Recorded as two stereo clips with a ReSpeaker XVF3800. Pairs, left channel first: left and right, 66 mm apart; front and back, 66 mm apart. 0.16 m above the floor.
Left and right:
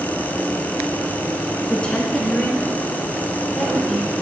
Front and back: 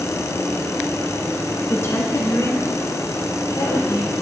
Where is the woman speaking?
30° left, 1.6 m; by 4.1 s straight ahead, 4.5 m.